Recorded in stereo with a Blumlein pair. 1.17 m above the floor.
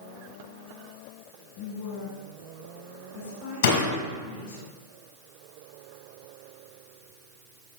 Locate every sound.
1.6 s a woman speaking: 50° left, 2.5 m; by 4.6 s 60° left, 4 m
3.6 s a door slam: 65° left, 5 m